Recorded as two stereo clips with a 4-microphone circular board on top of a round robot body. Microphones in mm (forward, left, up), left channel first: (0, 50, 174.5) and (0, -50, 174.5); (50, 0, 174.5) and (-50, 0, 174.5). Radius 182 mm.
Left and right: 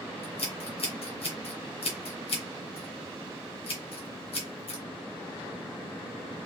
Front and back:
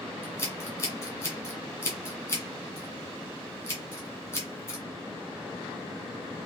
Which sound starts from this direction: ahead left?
Scissors, at 0.2 s.